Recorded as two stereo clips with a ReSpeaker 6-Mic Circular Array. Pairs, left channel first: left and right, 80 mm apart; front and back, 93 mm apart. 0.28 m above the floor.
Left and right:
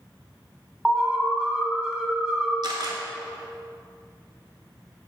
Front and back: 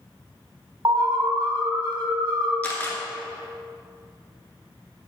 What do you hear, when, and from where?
0.8 s an alarm: 170° right, 1.3 m
2.6 s a camera shutter: 70° right, 1.5 m